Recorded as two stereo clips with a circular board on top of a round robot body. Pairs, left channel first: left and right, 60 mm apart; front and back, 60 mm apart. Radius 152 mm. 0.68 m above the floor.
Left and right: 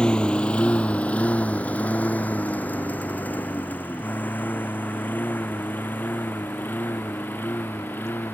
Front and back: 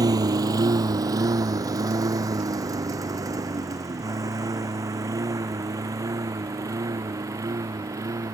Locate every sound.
0.0 s a lawn mower: 165° left; by 8.3 s 150° left